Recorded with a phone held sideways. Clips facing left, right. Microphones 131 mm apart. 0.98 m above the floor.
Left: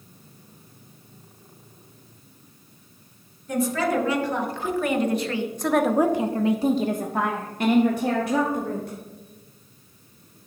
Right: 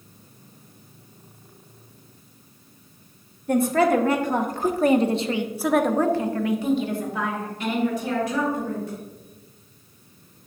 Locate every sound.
3.5 s a woman speaking: 60° right (ahead or behind), 1.9 m; by 9.0 s 70° left (ahead or behind), 2.5 m